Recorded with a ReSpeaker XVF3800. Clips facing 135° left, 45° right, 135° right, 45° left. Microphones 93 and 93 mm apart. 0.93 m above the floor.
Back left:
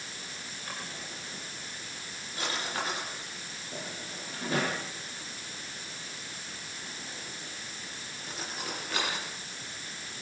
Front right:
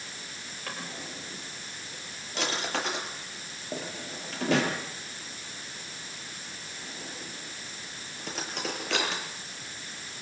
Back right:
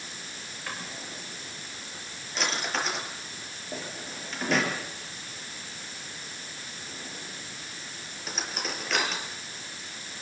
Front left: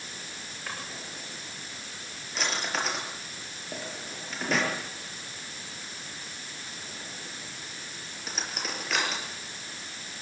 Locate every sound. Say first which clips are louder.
0.7 s a drawer: front right 3 dB, back right 1 dB; 45° right, 7 m